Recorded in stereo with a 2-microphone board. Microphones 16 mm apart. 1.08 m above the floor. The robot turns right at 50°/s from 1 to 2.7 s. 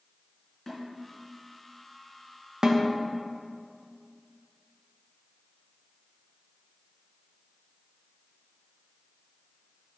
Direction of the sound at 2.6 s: 45° right (ahead or behind).